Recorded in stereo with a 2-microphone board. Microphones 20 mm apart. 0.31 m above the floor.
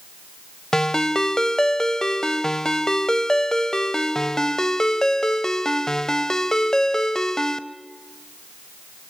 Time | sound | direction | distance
0.7 | a ringtone | 30° left (ahead or behind) | 0.7 m